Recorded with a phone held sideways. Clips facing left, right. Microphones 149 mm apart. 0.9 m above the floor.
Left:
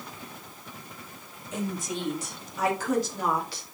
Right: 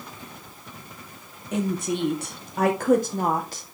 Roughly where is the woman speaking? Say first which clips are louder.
Right 6 dB; right.